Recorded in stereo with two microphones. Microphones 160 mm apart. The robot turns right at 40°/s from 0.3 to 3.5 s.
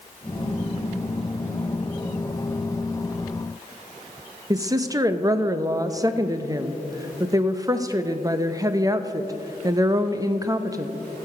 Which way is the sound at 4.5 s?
25° right (ahead or behind).